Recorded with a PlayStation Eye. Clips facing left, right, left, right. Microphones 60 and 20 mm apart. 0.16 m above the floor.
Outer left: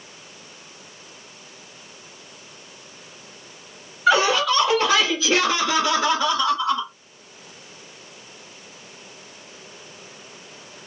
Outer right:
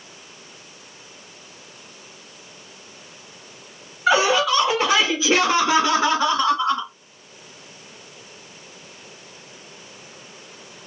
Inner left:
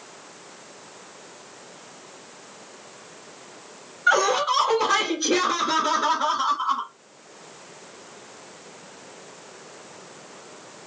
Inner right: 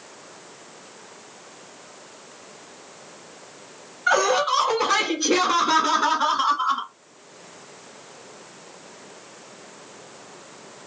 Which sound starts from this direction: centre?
Laughter, at 4.1 s.